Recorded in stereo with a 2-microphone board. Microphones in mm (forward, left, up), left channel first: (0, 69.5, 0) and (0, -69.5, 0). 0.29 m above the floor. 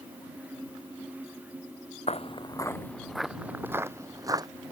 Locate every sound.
2.1 s footsteps: 55° left (ahead or behind); by 4.5 s 30° right (ahead or behind)